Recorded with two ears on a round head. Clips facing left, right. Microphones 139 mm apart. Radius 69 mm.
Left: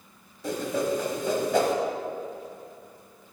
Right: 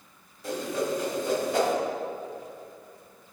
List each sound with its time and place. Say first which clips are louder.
0.4 s a whoosh: left 2 dB; 80° left, 1.1 m